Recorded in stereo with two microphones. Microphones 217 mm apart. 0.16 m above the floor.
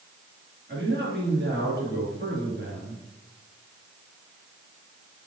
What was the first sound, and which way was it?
A man speaking, 50° right (ahead or behind).